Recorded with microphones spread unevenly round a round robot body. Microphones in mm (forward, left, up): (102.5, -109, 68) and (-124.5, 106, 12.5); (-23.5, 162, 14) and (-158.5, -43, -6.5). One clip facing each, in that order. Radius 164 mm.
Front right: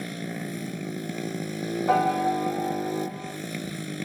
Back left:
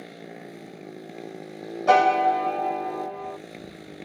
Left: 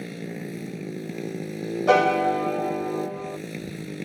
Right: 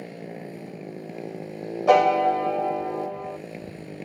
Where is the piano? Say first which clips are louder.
Back left 6 dB, right 1 dB; 130° left.